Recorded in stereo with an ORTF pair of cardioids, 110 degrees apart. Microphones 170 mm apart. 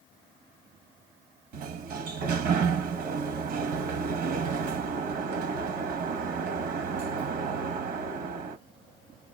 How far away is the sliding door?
About 1.1 m.